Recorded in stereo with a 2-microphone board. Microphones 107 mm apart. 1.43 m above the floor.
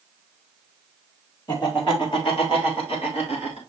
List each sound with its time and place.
1.5 s laughter: 45° left (ahead or behind), 3.5 m; by 3.6 s 75° left (ahead or behind), 5.5 m